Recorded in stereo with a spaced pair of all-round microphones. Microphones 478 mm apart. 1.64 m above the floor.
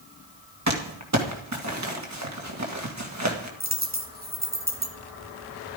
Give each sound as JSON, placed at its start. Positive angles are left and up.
{"t": 0.7, "sound": "crumpling", "side_deg": -35, "distance_m": 2.0}
{"t": 3.6, "sound": "a dropped coin", "side_deg": -20, "distance_m": 1.6}